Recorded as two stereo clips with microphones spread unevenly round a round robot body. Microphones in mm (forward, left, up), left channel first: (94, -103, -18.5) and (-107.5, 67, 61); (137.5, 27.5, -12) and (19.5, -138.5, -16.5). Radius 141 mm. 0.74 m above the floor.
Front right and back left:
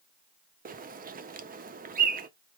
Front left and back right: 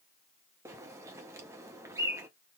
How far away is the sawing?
I don't hear sawing.